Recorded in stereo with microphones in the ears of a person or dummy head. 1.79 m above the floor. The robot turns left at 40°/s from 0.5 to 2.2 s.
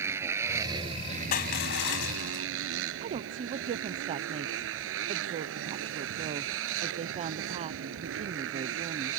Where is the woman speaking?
30° right (ahead or behind).